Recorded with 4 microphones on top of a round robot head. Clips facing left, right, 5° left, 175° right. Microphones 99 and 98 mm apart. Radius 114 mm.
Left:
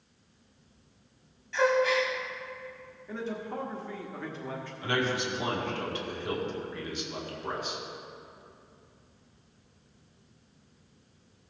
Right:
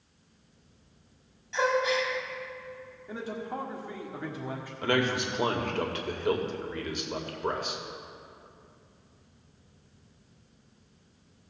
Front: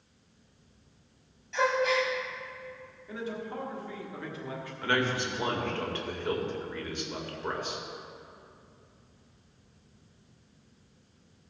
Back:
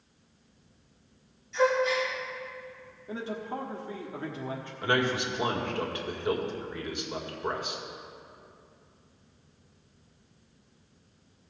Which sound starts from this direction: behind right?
A man speaking, at 3.1 s.